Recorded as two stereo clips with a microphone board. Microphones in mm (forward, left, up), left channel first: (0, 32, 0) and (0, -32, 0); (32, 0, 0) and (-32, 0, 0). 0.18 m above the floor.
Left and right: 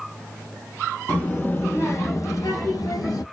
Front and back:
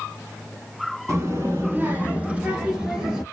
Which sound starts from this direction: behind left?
A child speaking, at 1.1 s.